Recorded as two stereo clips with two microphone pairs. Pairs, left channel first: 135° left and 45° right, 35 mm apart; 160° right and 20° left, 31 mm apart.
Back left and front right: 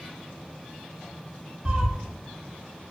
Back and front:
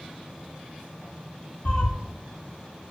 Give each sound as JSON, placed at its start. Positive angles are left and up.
{"t": 1.6, "sound": "a cat meowing", "azimuth_deg": -110, "distance_m": 0.7}